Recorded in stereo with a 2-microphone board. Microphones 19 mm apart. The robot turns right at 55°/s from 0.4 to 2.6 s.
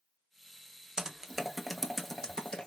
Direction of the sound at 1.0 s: 35° right (ahead or behind).